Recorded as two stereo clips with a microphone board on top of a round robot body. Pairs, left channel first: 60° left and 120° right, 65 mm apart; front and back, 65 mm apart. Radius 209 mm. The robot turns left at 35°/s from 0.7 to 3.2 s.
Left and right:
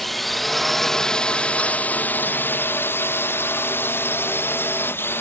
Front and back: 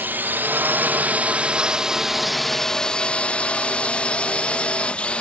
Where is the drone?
145° left; by 5.2 s 60° left.